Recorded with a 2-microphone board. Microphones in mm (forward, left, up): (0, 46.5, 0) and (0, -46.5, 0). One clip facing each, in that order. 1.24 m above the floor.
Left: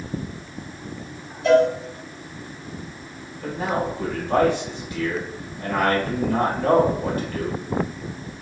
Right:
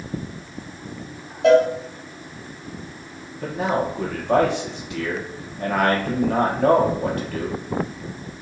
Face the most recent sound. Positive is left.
turn(degrees=-80)